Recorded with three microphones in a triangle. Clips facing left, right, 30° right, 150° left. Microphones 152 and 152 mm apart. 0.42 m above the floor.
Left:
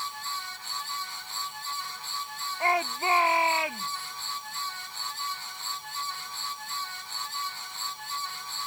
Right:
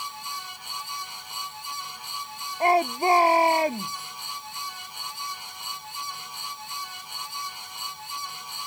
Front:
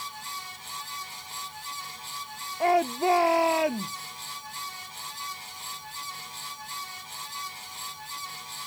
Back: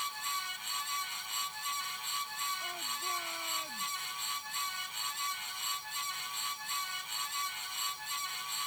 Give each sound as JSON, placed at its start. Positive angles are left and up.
{"t": 2.6, "sound": "a shout", "azimuth_deg": -30}